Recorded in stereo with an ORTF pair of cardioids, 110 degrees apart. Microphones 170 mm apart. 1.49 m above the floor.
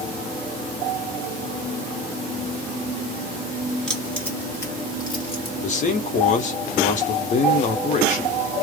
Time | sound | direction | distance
3.9 | keys jangling | 5° left | 1.6 m
5.6 | a man speaking | 50° left | 1.2 m